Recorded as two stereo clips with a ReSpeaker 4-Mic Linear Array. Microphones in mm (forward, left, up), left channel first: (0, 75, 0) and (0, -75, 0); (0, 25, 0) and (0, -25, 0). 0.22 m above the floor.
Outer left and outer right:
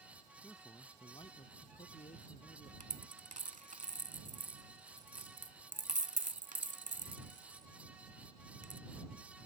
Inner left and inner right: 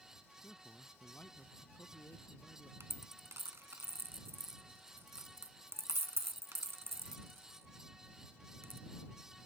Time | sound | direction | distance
0.4 | a man speaking | 10° left (ahead or behind) | ?
2.8 | a dropped coin | 65° right (ahead or behind) | ?